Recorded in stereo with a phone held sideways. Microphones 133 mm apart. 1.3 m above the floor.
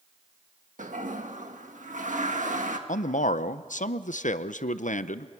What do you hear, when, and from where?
0.8 s a toilet flushing: 70° right (ahead or behind), 1.5 m
2.9 s a man speaking: 65° left (ahead or behind), 0.7 m